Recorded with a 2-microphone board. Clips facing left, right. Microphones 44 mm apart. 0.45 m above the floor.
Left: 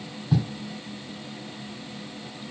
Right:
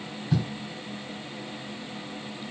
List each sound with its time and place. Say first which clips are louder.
0.3 s writing: left 2 dB; 10° left (ahead or behind), 5 m